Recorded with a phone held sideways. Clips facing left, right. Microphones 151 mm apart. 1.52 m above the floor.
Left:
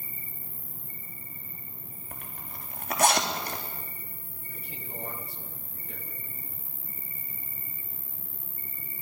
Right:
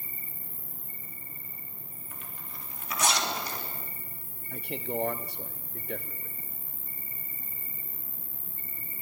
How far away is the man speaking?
About 0.9 m.